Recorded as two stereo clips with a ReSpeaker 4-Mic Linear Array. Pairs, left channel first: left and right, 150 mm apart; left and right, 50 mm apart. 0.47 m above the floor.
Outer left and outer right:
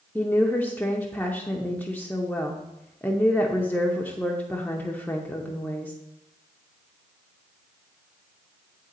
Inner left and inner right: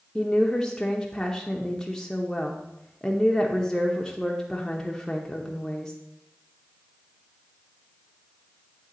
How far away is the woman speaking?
About 0.7 m.